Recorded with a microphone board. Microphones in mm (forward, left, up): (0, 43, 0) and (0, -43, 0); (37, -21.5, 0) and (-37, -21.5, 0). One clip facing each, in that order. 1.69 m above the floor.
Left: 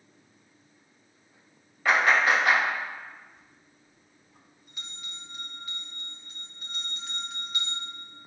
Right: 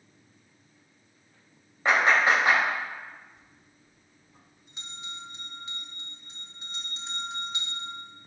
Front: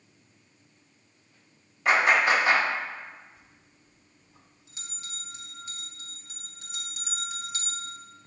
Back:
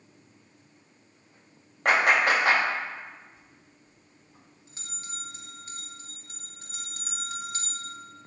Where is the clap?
155° right, 3 m.